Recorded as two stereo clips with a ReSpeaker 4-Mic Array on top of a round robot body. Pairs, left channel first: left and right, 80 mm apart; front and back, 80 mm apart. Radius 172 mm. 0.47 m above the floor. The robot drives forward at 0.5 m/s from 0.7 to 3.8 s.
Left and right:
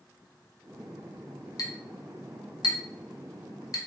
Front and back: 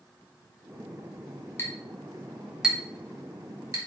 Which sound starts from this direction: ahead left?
A clink, at 1.6 s.